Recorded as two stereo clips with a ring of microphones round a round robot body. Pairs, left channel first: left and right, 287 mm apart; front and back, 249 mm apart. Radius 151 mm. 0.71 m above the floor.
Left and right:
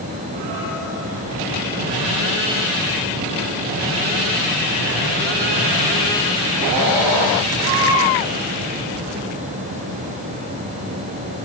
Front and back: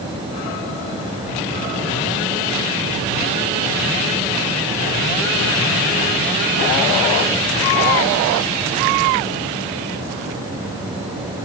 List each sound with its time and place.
Only background noise.